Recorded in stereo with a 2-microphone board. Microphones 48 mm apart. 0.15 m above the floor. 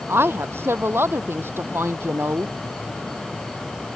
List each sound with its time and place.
0.1 s a woman speaking: 65° right (ahead or behind)